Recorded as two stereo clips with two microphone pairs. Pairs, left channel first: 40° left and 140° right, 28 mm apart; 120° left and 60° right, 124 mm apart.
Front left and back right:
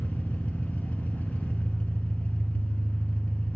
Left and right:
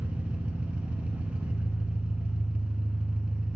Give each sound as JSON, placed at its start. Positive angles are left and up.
{"t": 0.0, "sound": "an engine running", "azimuth_deg": 20, "distance_m": 1.6}